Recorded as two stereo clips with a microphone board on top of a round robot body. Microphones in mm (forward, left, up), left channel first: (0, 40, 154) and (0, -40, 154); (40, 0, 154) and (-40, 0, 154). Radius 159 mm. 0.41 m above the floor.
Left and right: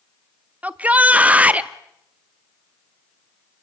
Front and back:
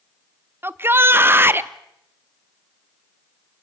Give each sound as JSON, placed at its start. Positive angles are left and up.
{"t": 0.6, "sound": "a shout", "azimuth_deg": -145, "distance_m": 0.9}